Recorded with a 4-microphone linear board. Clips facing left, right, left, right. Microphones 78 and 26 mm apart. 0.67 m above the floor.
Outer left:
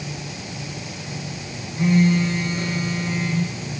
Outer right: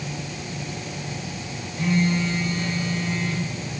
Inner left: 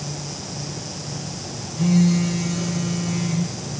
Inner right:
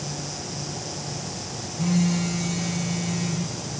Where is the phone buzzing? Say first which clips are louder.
Outer left 4 dB, inner left 5 dB; 20° left (ahead or behind), 0.7 m.